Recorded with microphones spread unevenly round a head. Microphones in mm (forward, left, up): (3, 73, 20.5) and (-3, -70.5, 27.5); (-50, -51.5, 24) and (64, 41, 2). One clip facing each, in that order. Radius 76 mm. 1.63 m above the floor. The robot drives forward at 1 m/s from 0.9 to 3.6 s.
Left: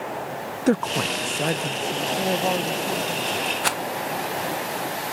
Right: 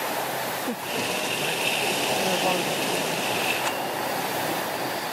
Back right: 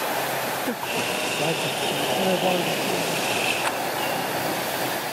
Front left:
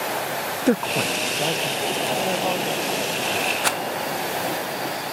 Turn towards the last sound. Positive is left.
turn(degrees=75)